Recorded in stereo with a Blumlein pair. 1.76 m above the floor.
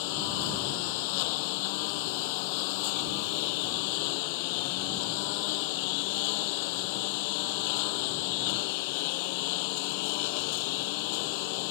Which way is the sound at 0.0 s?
45° left.